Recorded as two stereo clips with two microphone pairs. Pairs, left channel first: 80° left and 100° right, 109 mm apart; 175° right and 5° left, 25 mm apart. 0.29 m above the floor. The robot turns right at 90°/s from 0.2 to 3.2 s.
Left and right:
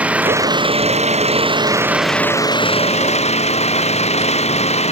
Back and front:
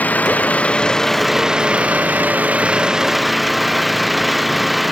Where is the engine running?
Straight behind; by 4.9 s 90° left.